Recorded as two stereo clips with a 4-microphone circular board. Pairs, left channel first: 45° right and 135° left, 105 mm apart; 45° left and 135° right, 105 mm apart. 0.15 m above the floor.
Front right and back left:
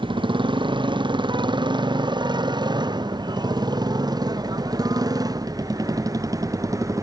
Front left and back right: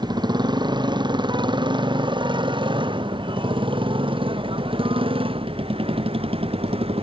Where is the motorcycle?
175° left; by 7.0 s 165° right.